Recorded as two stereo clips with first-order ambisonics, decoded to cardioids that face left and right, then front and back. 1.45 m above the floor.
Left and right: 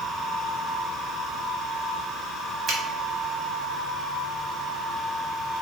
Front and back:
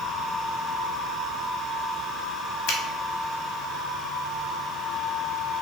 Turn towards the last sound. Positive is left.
turn(degrees=-30)